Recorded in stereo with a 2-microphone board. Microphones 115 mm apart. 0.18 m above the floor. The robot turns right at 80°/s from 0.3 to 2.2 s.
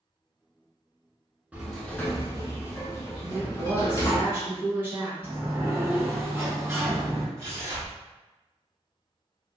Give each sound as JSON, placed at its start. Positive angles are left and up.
{"t": 1.5, "sound": "a sliding door", "azimuth_deg": -15, "distance_m": 0.7}
{"t": 3.2, "sound": "a woman speaking", "side_deg": -20, "distance_m": 1.3}
{"t": 5.2, "sound": "a sliding door", "side_deg": -25, "distance_m": 1.7}
{"t": 7.4, "sound": "tearing paper", "side_deg": -25, "distance_m": 1.0}